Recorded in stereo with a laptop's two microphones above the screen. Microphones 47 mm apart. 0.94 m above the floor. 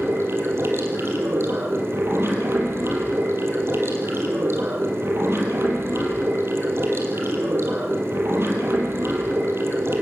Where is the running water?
65° right (ahead or behind), 5 m.